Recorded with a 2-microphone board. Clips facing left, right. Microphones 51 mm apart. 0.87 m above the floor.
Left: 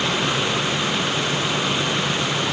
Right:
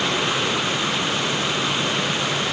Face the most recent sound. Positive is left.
No sound to turn to.